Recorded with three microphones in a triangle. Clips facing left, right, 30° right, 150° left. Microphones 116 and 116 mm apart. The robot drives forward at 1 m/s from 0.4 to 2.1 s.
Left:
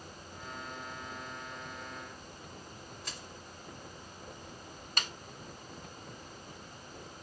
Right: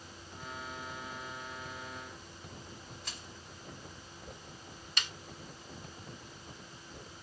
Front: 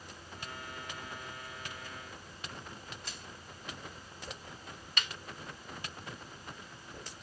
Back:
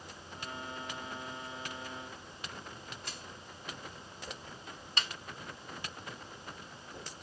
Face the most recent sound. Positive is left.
turn(degrees=110)